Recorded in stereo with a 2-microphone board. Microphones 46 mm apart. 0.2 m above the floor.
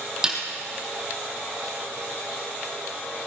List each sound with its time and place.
0.2 s a snare drum: 15° right (ahead or behind), 2.5 m